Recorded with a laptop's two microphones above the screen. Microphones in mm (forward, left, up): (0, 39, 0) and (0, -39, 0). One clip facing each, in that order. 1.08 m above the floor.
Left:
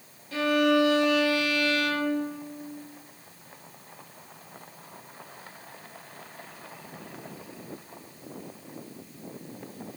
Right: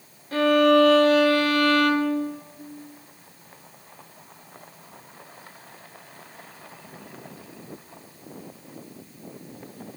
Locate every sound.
0.3 s a violin: 45° right (ahead or behind), 0.7 m